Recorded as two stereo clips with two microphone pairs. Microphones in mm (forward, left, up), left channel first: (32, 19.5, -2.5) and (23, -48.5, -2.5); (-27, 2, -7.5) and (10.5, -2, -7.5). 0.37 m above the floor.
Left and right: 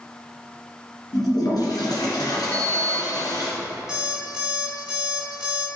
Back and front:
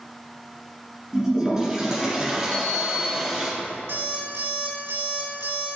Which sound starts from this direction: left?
A toilet flushing, at 1.1 s.